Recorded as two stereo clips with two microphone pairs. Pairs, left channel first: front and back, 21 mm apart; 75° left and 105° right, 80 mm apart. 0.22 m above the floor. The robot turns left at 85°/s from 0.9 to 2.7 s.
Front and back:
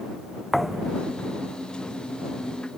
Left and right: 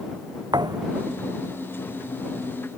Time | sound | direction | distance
0.5 | a thud | 85° right | ?